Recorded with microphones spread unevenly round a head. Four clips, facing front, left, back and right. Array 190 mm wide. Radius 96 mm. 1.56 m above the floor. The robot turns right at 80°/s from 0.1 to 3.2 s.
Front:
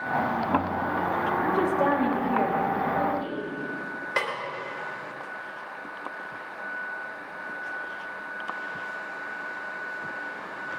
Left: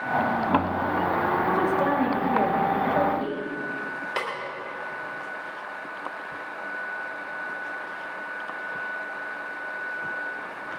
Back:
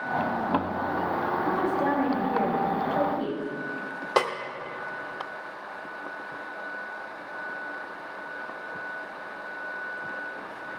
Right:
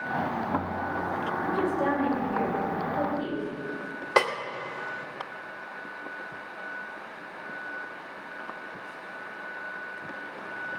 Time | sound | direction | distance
1.4 | a woman speaking | 15° right | 3.5 m
4.2 | a snare drum | 150° right | 2.5 m